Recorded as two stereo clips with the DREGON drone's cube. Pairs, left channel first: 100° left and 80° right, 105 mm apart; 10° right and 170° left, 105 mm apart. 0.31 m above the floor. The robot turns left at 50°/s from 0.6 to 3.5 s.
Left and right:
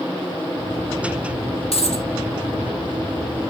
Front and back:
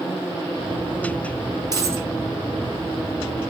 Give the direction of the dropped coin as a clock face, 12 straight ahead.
8 o'clock.